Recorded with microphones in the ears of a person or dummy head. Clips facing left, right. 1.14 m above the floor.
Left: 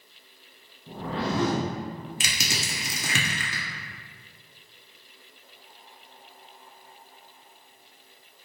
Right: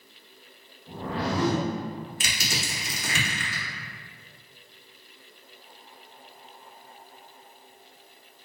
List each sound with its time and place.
0.9 s a whoosh: 20° left (ahead or behind), 0.9 m
2.2 s crushing: 60° left (ahead or behind), 0.8 m